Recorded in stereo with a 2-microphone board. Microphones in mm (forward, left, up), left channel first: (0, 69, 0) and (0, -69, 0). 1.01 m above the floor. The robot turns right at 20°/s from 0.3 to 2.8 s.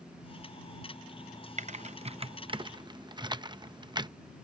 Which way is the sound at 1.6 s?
50° right (ahead or behind).